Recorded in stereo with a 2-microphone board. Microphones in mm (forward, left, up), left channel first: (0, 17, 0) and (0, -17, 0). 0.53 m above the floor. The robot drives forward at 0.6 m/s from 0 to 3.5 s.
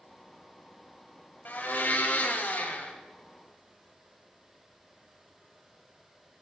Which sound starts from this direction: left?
A blender, at 1.4 s.